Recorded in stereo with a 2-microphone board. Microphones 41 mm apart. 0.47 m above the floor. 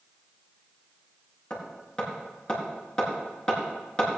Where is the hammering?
20° left (ahead or behind), 4 m.